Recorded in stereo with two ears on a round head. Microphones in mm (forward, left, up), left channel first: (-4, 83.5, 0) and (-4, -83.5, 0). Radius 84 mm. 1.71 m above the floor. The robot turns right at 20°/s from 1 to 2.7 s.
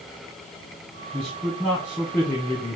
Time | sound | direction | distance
1.1 | a man speaking | 20° right | 1.1 m